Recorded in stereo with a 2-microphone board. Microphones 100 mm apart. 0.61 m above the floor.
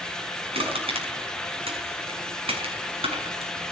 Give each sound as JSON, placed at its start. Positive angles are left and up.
{"t": 0.5, "sound": "crushing", "side_deg": -80, "distance_m": 5.5}